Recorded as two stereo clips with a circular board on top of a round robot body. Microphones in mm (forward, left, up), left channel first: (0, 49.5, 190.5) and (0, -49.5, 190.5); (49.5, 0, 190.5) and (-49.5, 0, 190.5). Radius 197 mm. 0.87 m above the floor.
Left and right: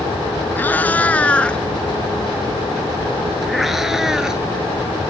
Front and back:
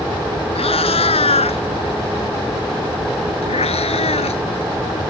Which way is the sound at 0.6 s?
20° left.